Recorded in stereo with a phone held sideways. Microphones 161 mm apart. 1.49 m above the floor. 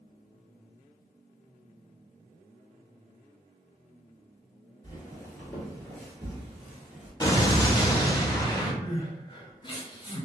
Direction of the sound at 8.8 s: 30° left (ahead or behind).